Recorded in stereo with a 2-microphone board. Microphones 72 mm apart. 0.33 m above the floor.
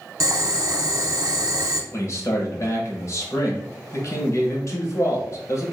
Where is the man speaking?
45° left (ahead or behind), 1.2 m.